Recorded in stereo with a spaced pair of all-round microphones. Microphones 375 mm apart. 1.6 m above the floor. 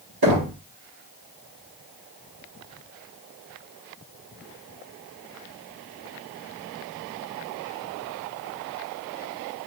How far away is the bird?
I don't hear a bird.